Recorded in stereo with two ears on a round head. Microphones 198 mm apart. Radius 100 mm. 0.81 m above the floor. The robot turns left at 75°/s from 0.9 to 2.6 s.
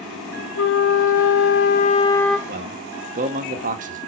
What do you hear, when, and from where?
0.6 s a flute: 110° left, 1.4 m; by 2.4 s 5° right, 1.4 m
2.5 s a man speaking: 45° right (ahead or behind), 1.5 m; by 4.0 s 35° right (ahead or behind), 1.5 m